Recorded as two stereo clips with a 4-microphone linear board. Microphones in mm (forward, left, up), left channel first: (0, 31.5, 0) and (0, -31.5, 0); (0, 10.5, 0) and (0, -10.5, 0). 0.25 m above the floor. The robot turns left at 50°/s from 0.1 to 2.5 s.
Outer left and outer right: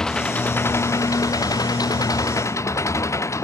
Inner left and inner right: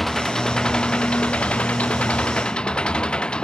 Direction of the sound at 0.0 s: 170° left.